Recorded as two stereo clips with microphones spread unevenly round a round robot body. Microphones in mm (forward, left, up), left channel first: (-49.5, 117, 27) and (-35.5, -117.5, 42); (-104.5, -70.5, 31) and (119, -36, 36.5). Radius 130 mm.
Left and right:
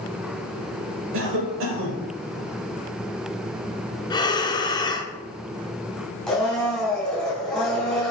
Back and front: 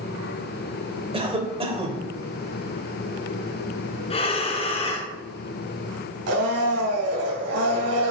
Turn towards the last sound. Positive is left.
turn(degrees=5)